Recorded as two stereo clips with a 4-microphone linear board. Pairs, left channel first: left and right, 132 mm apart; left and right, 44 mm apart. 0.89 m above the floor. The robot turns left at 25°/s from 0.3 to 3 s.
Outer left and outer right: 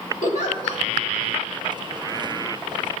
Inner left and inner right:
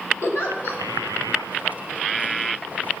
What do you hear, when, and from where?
0.2 s a giggle: 65° left (ahead or behind), 1.9 m; by 0.8 s 55° left (ahead or behind), 1.9 m